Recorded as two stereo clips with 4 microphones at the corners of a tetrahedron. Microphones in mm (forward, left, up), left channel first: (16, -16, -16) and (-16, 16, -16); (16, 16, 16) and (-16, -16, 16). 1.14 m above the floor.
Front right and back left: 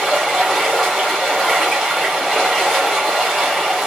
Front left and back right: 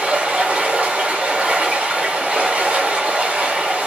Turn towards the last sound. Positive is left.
turn(degrees=-135)